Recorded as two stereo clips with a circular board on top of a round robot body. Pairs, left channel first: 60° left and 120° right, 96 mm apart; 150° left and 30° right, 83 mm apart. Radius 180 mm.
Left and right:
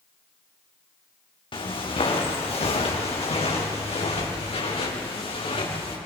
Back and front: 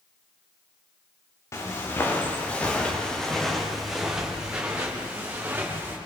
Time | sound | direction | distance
1.5 | footsteps | 95° left | 4 m